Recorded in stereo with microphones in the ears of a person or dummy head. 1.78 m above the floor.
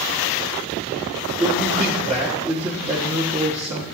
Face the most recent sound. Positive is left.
turn(degrees=-15)  # may be behind; listen again after turning